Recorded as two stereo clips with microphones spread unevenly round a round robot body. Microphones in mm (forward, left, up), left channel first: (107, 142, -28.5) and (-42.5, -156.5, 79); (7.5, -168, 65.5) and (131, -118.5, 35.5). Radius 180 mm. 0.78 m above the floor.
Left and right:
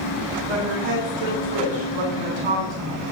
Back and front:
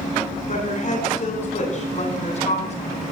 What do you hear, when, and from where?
0.5 s a woman speaking: 130° right, 8.5 m; by 3.1 s 120° right, 10 m